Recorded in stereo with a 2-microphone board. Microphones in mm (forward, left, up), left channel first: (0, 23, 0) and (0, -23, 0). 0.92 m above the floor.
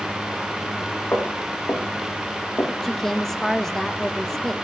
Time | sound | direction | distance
1.1 | footsteps | 50° left (ahead or behind) | 9.5 m
2.8 | a woman speaking | 10° left (ahead or behind) | 1.2 m